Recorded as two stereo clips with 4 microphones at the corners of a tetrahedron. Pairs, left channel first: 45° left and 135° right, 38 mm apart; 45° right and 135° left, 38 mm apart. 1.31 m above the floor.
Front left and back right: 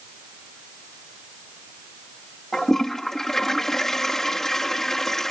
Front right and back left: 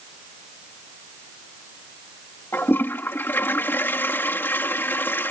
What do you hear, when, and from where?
2.5 s a toilet flushing: 35° right